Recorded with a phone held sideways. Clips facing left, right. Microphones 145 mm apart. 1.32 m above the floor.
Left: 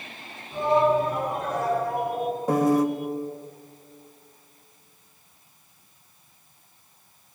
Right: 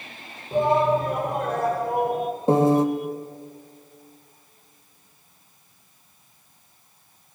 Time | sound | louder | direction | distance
0.5 | a shout | right 1 dB | 60° right (ahead or behind) | 4 m
2.5 | a piano | right 3 dB | 30° right (ahead or behind) | 1.2 m